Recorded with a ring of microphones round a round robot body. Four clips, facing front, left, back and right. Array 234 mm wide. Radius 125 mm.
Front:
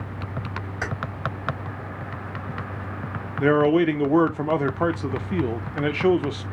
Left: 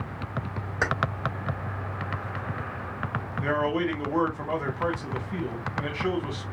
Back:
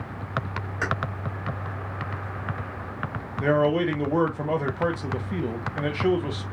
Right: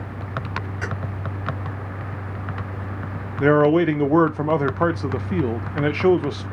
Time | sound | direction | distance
0.8 | keys jangling | 95° left | 2.5 m
3.4 | a man speaking | 70° right | 0.8 m